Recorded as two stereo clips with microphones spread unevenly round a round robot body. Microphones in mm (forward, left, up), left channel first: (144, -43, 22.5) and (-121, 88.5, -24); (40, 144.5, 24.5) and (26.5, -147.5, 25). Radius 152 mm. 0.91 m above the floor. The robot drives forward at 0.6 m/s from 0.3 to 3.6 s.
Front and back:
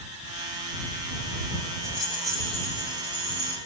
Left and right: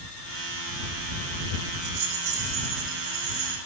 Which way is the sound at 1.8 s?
115° right.